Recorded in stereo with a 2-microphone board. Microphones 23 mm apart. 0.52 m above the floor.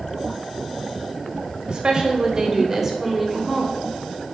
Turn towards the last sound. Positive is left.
turn(degrees=15)  # may be behind; listen again after turning